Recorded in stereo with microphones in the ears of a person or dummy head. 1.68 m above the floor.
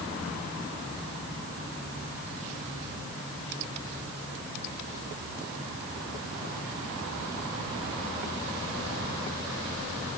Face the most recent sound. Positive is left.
No sound to turn to.